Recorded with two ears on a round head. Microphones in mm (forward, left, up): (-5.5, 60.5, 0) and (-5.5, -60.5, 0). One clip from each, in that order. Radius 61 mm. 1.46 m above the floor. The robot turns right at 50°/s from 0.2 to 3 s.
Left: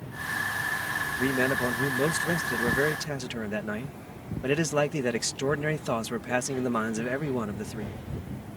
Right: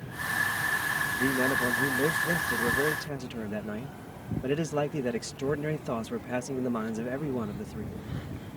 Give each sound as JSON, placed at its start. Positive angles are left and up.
{"t": 1.2, "sound": "a man speaking", "azimuth_deg": 40}